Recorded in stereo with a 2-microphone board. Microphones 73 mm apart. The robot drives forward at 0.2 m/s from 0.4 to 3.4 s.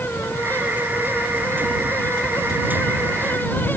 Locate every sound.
Only background noise.